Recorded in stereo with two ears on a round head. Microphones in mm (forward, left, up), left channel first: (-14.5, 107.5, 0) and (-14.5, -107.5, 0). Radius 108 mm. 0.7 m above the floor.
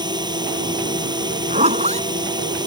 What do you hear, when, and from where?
0.0 s a drone: 20° right (ahead or behind)
1.5 s a zipper: 30° right (ahead or behind)